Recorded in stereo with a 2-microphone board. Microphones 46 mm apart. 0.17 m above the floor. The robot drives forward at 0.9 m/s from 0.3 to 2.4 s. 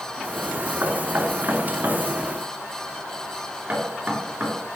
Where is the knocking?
50° right (ahead or behind), 2.0 m; by 4.5 s 35° right (ahead or behind), 2.5 m.